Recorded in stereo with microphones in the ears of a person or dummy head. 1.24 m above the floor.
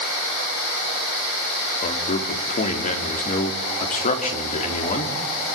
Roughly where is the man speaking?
Left.